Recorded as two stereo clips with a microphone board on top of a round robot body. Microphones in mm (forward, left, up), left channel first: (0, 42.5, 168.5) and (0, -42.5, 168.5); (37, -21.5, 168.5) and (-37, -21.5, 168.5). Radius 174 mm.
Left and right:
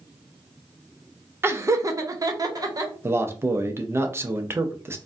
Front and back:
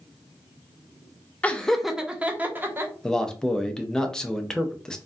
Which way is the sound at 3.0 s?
75° right.